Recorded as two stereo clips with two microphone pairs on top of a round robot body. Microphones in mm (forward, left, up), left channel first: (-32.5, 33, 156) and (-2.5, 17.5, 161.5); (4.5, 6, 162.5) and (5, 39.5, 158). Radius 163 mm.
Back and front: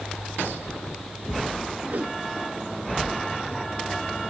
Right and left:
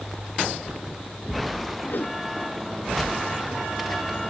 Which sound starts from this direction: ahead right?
A whoosh, at 1.9 s.